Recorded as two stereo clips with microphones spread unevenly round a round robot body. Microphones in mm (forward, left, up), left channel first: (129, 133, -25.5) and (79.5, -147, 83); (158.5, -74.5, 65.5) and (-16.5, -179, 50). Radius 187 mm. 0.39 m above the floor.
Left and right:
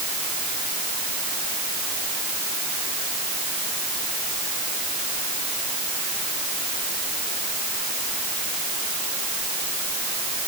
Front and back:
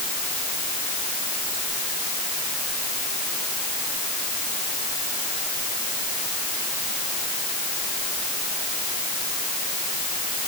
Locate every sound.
Only background noise.